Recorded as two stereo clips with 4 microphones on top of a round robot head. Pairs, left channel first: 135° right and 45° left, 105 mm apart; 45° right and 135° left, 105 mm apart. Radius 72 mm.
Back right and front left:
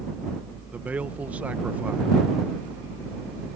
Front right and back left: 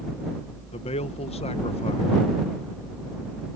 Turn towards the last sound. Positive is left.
turn(degrees=-30)